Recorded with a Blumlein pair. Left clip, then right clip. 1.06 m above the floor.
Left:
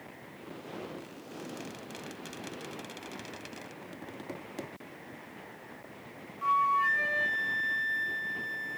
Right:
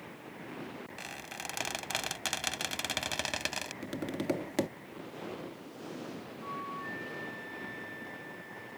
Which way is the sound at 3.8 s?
30° right.